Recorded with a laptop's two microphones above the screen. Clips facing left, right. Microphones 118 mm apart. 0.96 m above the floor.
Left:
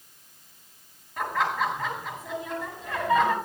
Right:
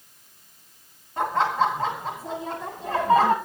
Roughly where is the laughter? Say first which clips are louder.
Right 4 dB; right.